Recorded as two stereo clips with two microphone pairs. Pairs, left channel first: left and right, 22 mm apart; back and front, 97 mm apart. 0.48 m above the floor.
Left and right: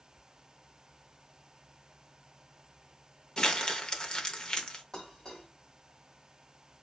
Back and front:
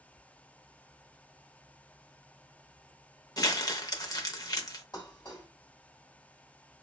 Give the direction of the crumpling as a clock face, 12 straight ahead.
8 o'clock.